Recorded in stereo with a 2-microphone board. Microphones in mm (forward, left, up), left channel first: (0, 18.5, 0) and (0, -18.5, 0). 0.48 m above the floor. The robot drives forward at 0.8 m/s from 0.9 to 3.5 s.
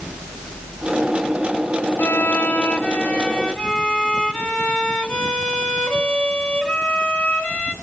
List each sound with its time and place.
2.0 s a violin: 85° left, 0.6 m; by 7.7 s 25° left (ahead or behind), 1.4 m